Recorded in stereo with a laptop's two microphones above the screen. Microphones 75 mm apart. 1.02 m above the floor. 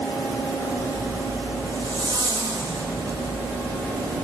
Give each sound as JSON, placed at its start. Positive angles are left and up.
{"t": 0.8, "sound": "a zipper", "side_deg": -65, "distance_m": 4.5}